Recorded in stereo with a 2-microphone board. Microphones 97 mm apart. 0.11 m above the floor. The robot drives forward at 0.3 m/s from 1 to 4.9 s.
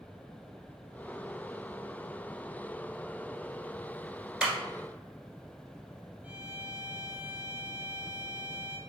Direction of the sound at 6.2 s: 15° right (ahead or behind).